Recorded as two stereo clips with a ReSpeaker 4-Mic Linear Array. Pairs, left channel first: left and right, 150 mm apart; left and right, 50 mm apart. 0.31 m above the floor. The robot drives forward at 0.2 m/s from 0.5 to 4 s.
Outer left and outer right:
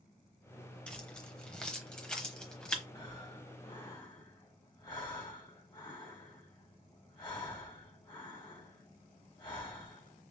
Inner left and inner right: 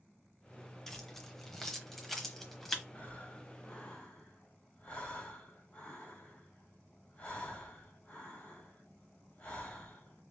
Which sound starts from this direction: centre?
Keys jangling, at 0.9 s.